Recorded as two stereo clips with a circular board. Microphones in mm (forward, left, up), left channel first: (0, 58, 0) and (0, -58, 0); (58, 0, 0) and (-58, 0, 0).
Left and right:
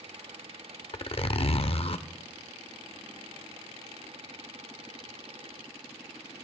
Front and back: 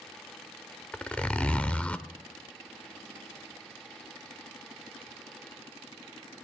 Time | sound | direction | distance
0.9 | a zipper | 75° left | 0.7 m